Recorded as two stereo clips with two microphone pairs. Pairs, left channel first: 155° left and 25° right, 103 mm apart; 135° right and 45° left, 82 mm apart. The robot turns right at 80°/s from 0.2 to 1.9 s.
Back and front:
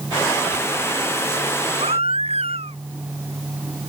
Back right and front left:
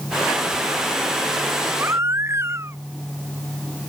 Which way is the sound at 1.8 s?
20° right.